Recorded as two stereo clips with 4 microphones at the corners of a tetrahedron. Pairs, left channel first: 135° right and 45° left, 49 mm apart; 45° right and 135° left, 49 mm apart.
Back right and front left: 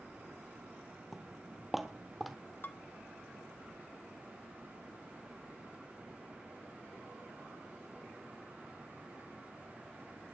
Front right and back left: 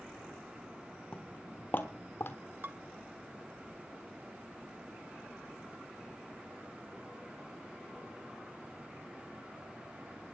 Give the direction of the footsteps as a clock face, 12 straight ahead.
1 o'clock.